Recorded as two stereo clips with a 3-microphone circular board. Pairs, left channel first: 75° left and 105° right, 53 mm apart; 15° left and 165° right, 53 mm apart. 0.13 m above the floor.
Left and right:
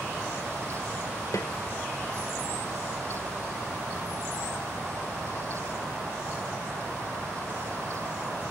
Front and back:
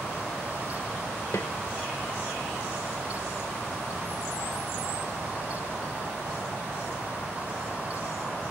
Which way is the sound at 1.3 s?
50° left.